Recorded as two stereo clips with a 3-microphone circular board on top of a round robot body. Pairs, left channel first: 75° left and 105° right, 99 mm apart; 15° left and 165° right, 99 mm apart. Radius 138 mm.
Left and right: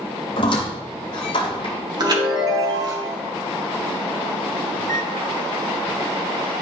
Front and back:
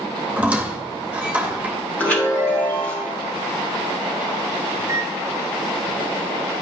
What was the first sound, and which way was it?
A squeak, 120° left.